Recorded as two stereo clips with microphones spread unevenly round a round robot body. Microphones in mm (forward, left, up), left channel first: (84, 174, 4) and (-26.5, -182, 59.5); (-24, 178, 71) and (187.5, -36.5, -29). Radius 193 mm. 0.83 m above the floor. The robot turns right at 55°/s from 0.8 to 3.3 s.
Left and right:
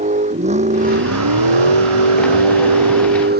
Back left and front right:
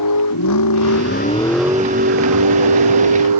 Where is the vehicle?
Straight behind; by 3.4 s 45° right.